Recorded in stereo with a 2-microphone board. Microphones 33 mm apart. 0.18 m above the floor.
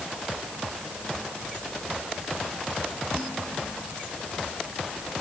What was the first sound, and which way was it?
Only background noise.